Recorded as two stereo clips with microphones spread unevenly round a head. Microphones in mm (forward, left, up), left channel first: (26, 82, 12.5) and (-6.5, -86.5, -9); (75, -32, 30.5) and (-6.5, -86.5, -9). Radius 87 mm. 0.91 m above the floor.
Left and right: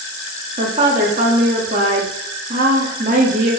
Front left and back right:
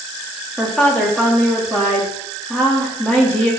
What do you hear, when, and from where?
0.6 s a woman speaking: 55° right, 1.5 m